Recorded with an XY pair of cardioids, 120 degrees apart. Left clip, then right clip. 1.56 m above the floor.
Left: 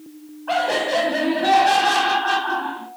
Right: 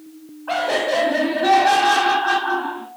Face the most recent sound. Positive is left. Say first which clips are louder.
# even
turn(degrees=-10)